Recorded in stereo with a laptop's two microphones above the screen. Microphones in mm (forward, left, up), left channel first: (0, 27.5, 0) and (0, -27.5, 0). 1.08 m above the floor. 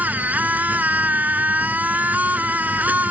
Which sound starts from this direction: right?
A machine running, at 0.0 s.